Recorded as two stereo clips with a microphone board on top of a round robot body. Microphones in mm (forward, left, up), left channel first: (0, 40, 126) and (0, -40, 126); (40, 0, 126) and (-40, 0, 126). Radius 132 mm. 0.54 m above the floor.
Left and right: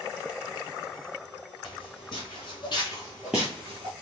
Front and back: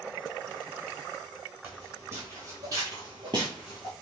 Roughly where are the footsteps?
Behind left.